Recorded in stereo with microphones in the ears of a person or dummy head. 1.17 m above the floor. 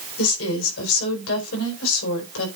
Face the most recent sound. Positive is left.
turn(degrees=80)